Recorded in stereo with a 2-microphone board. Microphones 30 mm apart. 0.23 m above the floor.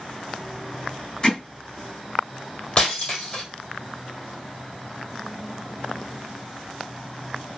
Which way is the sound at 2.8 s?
35° left (ahead or behind).